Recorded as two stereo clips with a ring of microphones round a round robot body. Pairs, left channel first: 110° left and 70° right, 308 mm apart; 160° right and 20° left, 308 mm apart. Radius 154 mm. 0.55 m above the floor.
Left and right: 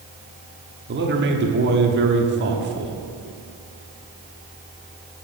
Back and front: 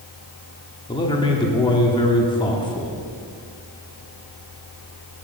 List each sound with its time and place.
0.9 s a man speaking: 90° right, 1.1 m